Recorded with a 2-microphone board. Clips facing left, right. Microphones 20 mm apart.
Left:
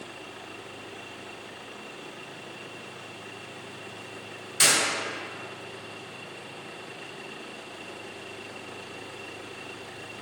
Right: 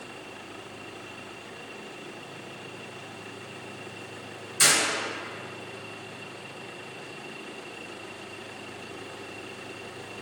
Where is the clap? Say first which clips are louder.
Even; 45° left (ahead or behind), 1.8 m.